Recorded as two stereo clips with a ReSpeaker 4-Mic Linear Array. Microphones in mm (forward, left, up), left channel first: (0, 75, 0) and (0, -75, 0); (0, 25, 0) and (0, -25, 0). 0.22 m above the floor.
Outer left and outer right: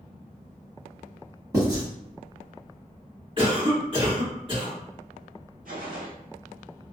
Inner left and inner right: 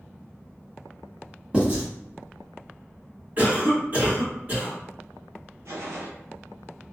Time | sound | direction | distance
1.5 | writing | 20° right (ahead or behind) | 1.8 m
3.4 | a cough | 40° right (ahead or behind) | 1.9 m
5.7 | a gunshot | 75° right (ahead or behind) | 0.9 m